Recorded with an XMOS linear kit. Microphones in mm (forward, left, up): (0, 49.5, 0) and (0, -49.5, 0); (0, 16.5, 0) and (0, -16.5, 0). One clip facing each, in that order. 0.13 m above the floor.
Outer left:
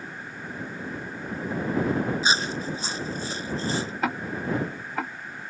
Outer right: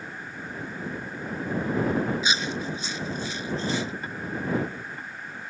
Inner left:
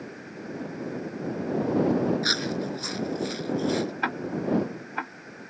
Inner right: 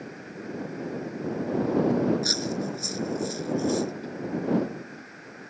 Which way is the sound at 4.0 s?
75° left (ahead or behind).